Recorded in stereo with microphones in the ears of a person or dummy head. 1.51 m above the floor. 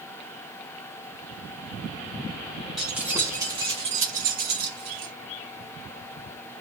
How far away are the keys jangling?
About 1.4 m.